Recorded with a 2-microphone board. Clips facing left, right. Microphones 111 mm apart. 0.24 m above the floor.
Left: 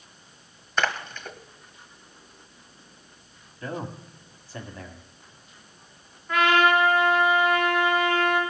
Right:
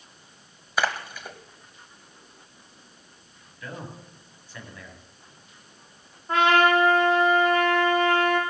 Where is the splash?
10° right (ahead or behind), 1.2 m.